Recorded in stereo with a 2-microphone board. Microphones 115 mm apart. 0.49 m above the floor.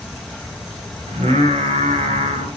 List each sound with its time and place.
1.1 s singing: 70° right (ahead or behind), 2 m